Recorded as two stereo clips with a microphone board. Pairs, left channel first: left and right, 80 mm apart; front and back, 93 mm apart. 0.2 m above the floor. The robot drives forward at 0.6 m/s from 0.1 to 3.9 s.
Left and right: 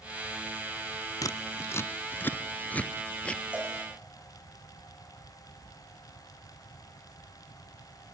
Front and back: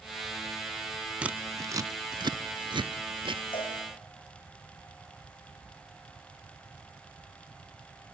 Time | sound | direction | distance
1.2 | scissors | 105° left | 0.5 m
3.5 | a cowbell | 15° right | 5.5 m